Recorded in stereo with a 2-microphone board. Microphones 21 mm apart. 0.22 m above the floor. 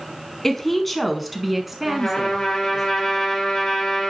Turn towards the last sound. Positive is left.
turn(degrees=20)  # may be behind; listen again after turning